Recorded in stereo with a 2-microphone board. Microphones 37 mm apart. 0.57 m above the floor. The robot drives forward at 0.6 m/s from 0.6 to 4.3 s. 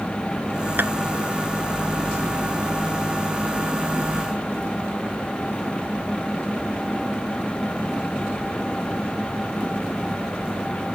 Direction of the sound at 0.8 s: 70° right (ahead or behind).